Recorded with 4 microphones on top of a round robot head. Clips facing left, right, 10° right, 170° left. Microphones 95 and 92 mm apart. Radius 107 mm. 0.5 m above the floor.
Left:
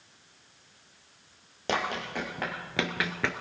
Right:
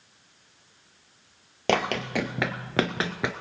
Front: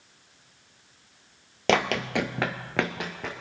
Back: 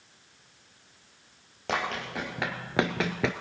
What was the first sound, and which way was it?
Running footsteps, 40° right.